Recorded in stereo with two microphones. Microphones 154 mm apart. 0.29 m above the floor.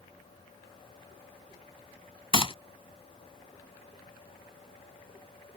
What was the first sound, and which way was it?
A gunshot, 35° left (ahead or behind).